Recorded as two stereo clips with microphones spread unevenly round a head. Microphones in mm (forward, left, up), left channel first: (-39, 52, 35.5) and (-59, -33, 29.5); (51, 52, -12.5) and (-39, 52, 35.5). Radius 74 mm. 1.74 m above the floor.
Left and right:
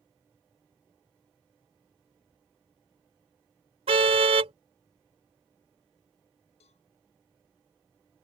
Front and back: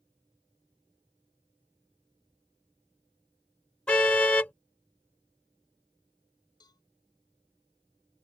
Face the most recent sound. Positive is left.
turn(degrees=50)